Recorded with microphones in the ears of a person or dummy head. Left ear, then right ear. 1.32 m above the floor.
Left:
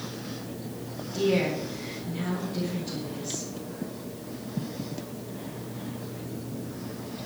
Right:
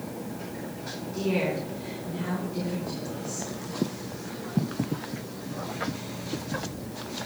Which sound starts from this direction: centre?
A woman speaking, at 1.1 s.